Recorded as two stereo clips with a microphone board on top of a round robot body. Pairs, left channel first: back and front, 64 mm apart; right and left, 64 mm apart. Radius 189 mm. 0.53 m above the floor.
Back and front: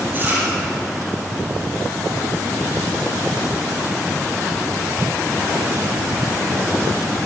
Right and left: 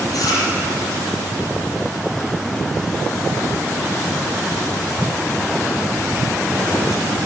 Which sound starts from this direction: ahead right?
Chewing, at 0.1 s.